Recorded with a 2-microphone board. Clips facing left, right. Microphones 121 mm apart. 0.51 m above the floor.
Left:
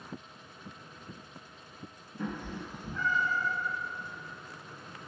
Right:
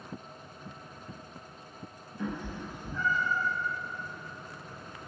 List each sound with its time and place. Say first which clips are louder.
2.2 s a cat meowing: right 1 dB; 50° left (ahead or behind), 1.3 m; by 3.5 s 70° left (ahead or behind), 2.5 m